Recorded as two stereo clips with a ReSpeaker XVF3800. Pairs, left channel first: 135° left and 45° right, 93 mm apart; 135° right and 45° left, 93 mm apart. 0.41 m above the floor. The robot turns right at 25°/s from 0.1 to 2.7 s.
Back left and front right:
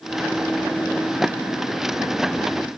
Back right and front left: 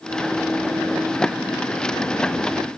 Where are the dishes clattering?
No dishes clattering in this recording.